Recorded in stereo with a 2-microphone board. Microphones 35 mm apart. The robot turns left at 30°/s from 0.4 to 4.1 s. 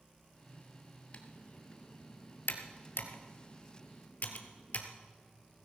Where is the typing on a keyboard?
40° left (ahead or behind), 1.4 m; by 4.9 s 50° left (ahead or behind), 1.4 m.